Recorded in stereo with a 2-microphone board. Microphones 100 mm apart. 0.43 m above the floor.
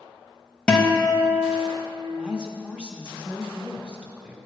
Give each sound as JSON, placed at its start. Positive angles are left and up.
{"t": 0.7, "sound": "a guitar", "side_deg": 10, "distance_m": 0.7}
{"t": 2.1, "sound": "a woman speaking", "side_deg": -10, "distance_m": 0.8}